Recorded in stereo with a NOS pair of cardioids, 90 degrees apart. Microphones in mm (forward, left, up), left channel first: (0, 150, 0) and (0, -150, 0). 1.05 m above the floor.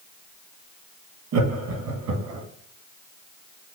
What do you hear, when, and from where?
1.3 s laughter: 70° right, 1.4 m; by 2.5 s 80° right, 2 m